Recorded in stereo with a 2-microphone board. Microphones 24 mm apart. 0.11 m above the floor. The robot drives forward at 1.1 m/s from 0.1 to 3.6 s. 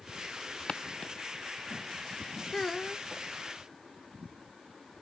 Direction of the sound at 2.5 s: 20° left (ahead or behind).